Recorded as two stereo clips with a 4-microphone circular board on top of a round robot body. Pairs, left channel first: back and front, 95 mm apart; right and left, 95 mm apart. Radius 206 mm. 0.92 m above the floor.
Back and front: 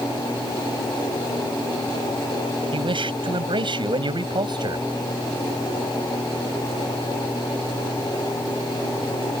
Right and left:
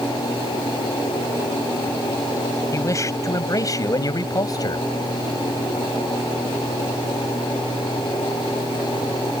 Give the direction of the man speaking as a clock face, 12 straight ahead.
1 o'clock.